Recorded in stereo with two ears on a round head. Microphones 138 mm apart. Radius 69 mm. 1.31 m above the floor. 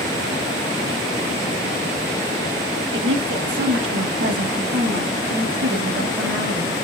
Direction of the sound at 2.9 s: 80° right.